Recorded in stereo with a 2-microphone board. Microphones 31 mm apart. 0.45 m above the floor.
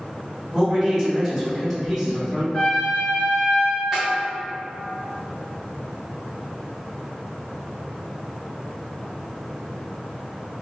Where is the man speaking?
5° left (ahead or behind), 1.2 m.